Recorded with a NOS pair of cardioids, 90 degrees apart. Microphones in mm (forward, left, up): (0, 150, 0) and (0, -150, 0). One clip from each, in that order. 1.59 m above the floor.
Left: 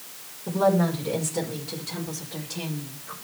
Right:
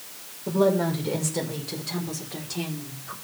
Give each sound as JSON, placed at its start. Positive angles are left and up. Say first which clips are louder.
{"t": 0.5, "sound": "a woman speaking", "louder": "even", "azimuth_deg": -20, "distance_m": 5.5}